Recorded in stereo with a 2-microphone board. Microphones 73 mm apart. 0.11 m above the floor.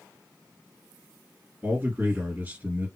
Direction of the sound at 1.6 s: 25° right (ahead or behind).